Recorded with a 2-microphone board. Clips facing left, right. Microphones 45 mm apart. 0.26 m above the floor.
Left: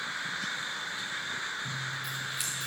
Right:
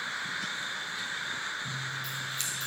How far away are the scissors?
About 1.9 m.